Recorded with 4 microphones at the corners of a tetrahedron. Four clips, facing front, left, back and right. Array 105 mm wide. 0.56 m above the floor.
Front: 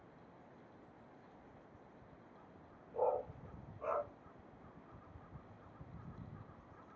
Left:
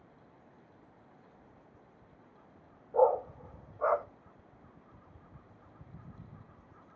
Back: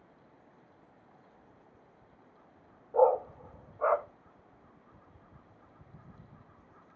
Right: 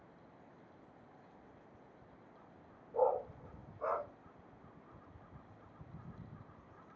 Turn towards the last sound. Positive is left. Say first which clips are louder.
# left 7 dB, back 12 dB
turn(degrees=150)